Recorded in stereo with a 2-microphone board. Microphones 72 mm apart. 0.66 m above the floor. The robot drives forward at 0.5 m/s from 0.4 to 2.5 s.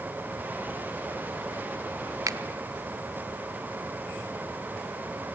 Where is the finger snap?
50° right (ahead or behind), 0.8 m.